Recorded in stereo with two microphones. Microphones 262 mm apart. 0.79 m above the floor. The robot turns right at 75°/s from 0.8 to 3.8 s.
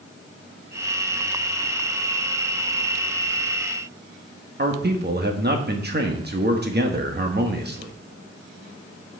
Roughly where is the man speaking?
Right.